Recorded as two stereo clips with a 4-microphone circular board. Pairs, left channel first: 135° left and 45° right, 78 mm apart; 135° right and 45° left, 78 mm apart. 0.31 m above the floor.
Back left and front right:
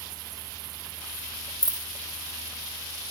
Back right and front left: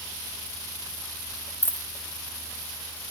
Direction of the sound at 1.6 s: 75° right.